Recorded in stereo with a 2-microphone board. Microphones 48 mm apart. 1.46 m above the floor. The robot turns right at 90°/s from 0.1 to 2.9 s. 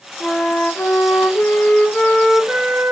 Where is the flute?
5° left, 2.5 m; by 2.9 s 115° right, 2.5 m.